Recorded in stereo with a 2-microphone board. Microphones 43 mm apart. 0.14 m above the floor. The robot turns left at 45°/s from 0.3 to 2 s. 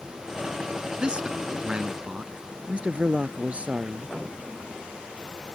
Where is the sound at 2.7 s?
30° right (ahead or behind).